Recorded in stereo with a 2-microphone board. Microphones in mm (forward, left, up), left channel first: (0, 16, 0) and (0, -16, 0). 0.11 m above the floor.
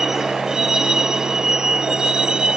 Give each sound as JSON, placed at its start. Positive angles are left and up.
{"t": 0.0, "sound": "a vehicle", "side_deg": -15}